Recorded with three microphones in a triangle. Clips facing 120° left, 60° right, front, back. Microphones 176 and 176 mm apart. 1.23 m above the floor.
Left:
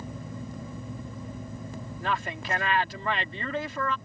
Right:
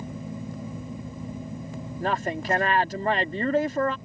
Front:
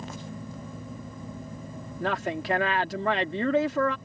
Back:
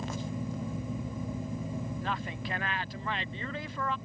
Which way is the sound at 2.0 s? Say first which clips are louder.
Right 5 dB, front 7 dB; 10° right.